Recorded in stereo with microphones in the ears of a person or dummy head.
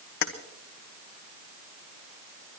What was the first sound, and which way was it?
Keys jangling, 55° left (ahead or behind).